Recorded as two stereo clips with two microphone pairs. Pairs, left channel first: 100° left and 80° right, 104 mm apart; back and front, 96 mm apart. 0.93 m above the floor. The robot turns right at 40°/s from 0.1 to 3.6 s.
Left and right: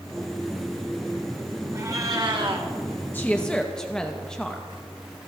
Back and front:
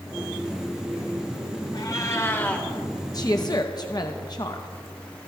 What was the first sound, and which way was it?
A cat meowing, 140° right.